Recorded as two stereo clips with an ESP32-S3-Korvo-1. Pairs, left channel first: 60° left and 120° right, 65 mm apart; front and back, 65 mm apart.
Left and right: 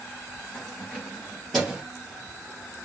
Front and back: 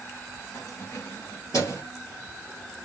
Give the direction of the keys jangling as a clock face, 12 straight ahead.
12 o'clock.